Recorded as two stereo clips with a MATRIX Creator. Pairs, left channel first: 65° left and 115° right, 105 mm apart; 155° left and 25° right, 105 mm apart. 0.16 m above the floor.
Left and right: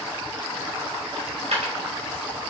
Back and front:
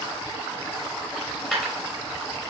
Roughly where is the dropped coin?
Right.